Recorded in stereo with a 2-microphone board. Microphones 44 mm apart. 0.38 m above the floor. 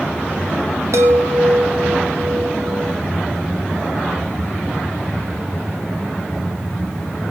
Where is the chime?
85° right, 3 m.